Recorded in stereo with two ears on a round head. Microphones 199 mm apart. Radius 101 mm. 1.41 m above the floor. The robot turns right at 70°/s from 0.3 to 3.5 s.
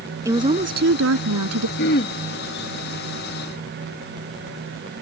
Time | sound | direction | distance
0.2 | a woman speaking | 165° right | ?
1.8 | throat clearing | 55° left (ahead or behind) | ?